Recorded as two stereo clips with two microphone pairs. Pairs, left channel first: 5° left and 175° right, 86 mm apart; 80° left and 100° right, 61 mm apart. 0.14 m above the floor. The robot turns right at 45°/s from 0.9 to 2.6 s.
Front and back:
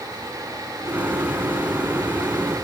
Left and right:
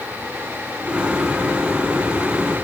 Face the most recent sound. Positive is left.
No sound to turn to.